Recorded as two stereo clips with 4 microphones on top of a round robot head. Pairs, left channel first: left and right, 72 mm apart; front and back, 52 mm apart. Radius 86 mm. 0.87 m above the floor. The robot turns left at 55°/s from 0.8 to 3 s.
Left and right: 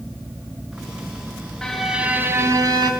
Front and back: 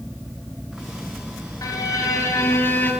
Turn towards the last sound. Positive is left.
turn(degrees=-65)